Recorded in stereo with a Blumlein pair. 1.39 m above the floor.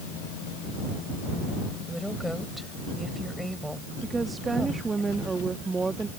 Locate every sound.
1.9 s a woman speaking: straight ahead
4.0 s a woman speaking: 10° right